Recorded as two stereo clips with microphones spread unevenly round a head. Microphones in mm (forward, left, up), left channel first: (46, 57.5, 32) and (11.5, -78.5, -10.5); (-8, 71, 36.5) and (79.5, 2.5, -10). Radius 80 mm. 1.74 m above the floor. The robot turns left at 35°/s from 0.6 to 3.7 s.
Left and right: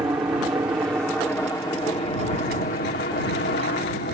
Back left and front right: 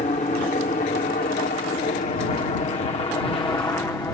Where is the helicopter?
175° right; by 4.1 s 80° left.